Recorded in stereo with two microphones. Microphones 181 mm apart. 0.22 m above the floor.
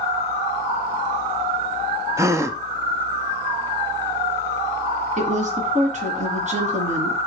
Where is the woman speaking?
40° right (ahead or behind), 1.9 m.